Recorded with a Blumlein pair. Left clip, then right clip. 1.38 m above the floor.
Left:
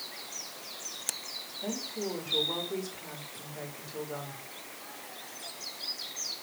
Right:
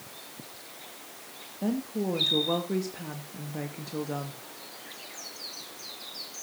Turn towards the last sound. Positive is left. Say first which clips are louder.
# right 5 dB
turn(degrees=-50)